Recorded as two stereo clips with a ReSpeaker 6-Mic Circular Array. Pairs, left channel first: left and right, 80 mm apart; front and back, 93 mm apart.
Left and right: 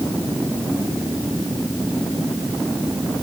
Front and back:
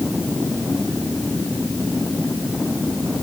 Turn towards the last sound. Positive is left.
No sound to turn to.